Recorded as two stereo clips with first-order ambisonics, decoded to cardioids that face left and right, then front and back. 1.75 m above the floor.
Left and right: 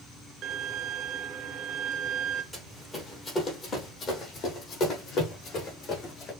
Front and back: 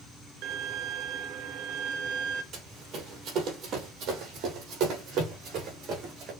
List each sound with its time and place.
0.4 s a violin: 145° right, 0.6 m
2.5 s running footsteps: 175° left, 2 m; by 6.3 s 140° left, 4.5 m